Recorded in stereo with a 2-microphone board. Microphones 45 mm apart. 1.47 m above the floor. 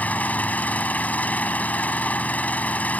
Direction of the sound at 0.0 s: 40° left (ahead or behind).